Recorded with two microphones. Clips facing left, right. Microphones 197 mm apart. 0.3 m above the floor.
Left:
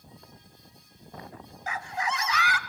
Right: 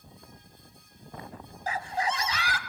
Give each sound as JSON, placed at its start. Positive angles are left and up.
{"t": 1.7, "sound": "a scream", "side_deg": -35, "distance_m": 1.1}